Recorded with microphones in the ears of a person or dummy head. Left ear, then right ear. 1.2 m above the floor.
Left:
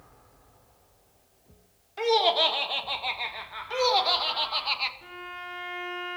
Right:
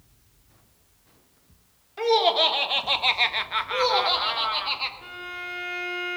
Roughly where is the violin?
Right.